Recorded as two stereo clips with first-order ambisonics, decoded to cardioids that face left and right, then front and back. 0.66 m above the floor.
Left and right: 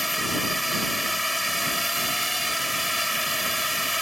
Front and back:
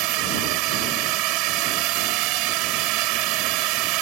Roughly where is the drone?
Behind.